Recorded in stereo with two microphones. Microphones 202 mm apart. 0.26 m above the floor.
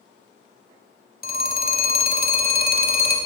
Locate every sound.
1.2 s a phone ringing: 45° left (ahead or behind), 0.8 m